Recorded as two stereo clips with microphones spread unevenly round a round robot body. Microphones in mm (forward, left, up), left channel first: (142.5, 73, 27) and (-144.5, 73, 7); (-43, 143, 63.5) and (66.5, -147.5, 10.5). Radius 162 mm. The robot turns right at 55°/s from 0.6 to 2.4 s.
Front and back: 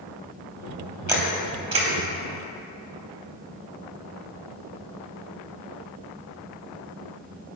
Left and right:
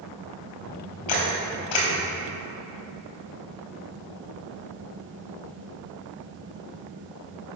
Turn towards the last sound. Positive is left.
turn(degrees=170)